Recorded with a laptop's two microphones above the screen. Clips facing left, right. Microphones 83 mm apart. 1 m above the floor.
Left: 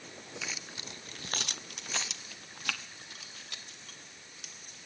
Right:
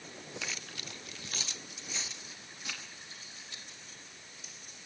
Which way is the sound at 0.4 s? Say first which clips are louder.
Left 2 dB; centre (ahead or behind).